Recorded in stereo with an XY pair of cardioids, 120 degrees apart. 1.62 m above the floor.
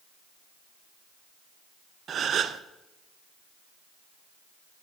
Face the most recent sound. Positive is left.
turn(degrees=-45)